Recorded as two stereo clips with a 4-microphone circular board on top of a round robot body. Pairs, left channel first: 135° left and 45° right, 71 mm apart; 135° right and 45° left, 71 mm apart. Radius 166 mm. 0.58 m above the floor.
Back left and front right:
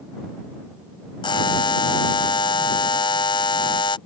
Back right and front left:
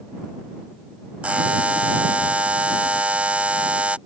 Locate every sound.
1.2 s a buzzer: 120° left